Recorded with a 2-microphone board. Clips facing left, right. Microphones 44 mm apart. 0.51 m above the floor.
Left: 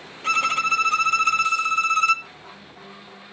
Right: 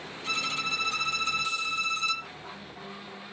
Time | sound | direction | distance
0.2 | a violin | 55° left (ahead or behind) | 1.2 m